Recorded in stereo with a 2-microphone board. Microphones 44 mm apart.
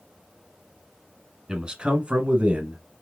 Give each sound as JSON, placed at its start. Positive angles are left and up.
{"t": 1.5, "sound": "a man speaking", "side_deg": -20, "distance_m": 1.2}